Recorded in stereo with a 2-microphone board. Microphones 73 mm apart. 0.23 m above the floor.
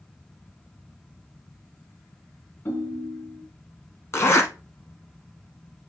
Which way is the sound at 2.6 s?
25° left (ahead or behind).